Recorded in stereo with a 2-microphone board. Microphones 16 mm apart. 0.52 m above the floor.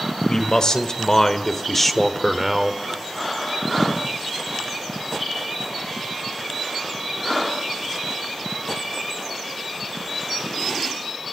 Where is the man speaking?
55° left (ahead or behind), 1.9 m; by 2.8 s 15° right (ahead or behind), 1.4 m.